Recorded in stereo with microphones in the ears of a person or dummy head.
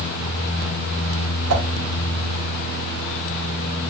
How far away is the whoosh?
About 0.8 m.